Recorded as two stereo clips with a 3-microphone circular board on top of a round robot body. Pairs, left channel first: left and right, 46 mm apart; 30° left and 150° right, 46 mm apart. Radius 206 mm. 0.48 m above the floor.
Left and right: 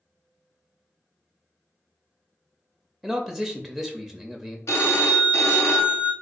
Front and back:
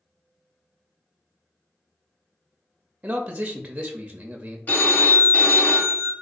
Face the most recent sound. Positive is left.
turn(degrees=85)